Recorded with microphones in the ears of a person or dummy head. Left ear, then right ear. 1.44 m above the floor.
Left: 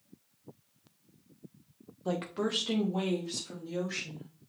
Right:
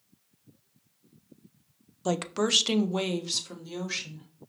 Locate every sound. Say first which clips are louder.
2.0 s a woman speaking: right 6 dB; 70° right (ahead or behind), 0.5 m; by 4.3 s 40° right (ahead or behind), 1.7 m